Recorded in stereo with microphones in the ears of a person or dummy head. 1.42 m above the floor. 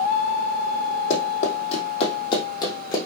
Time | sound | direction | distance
1.1 | running footsteps | 45° left (ahead or behind) | 3 m